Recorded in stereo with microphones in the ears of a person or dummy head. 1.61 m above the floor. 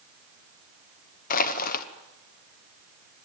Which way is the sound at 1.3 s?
50° left (ahead or behind).